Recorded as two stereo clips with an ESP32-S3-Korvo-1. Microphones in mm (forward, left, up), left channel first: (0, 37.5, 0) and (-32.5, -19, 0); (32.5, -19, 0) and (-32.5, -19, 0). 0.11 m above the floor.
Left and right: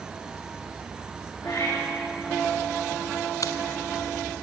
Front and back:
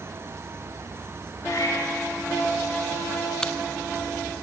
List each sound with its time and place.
1.4 s a cat meowing: 35° left, 9.5 m
3.4 s a dropped coin: 80° left, 0.7 m